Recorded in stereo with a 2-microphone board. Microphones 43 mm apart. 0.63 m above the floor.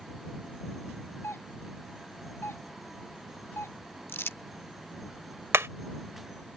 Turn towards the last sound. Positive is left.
turn(degrees=-85)